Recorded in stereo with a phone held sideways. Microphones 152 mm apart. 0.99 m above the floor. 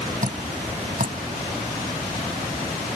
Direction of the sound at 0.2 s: 60° right (ahead or behind).